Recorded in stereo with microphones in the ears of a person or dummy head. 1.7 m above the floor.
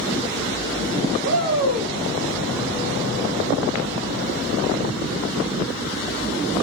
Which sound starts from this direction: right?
A shout, at 1.2 s.